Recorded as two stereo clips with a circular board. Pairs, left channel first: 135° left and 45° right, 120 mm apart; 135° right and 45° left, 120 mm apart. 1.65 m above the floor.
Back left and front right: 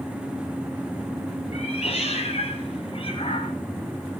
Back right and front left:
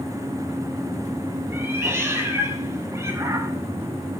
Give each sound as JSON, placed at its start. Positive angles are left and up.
{"t": 1.5, "sound": "a cat meowing", "azimuth_deg": 115, "distance_m": 3.5}